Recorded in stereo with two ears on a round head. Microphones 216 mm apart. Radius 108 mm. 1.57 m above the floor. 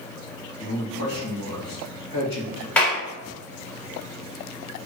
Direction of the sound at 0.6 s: 85° left.